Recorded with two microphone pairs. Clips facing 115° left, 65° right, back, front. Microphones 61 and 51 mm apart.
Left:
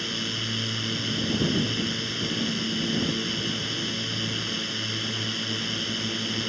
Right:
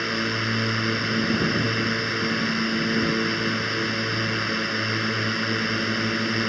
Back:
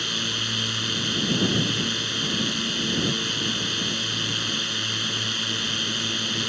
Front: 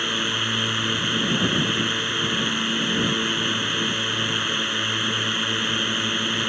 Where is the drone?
50° right.